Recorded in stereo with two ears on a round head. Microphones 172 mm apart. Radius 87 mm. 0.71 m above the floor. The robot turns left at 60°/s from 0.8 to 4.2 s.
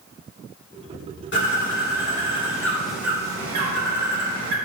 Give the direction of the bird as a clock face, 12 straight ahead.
9 o'clock.